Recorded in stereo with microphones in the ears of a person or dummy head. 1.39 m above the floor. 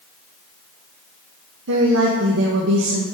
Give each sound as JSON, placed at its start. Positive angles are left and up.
{"t": 1.7, "sound": "a woman speaking", "side_deg": -70, "distance_m": 1.0}